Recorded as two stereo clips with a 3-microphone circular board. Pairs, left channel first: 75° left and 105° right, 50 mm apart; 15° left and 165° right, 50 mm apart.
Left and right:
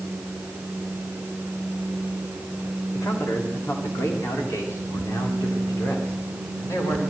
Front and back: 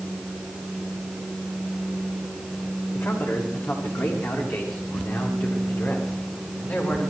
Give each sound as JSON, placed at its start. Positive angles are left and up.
{"t": 2.9, "sound": "a man speaking", "azimuth_deg": 50, "distance_m": 8.0}